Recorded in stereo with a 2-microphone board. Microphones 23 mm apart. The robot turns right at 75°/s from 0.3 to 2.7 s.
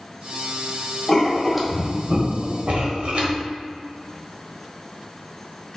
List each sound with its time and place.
1.1 s writing: 30° left (ahead or behind), 1.4 m; by 3.4 s 70° right (ahead or behind), 1.4 m